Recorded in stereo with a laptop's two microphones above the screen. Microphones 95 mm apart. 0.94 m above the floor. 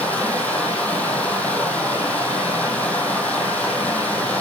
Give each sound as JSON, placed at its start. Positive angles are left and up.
{"t": 0.0, "sound": "running water", "side_deg": 15, "distance_m": 3.5}